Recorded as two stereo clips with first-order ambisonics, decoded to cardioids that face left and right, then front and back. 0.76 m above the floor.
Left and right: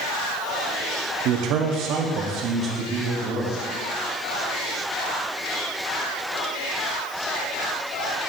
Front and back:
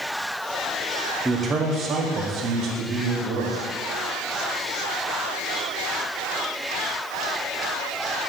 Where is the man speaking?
105° right, 0.8 m; by 3.5 s 155° right, 1.5 m.